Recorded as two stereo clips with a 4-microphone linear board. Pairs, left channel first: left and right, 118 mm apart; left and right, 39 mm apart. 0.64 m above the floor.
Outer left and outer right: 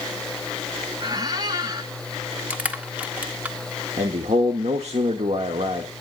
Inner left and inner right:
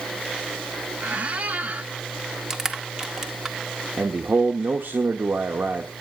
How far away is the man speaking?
About 1.2 m.